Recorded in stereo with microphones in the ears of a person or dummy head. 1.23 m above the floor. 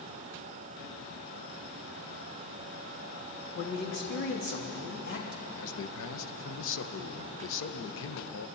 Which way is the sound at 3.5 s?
60° left (ahead or behind).